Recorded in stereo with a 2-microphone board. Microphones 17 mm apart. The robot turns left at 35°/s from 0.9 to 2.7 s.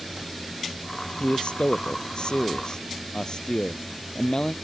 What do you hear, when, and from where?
1.2 s a man speaking: 100° left; by 4.5 s 45° left